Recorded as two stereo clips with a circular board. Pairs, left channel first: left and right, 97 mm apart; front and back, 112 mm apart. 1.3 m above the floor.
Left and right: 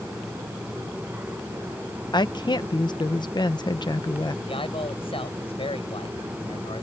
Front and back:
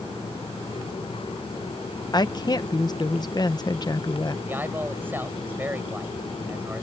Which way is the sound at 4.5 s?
110° left.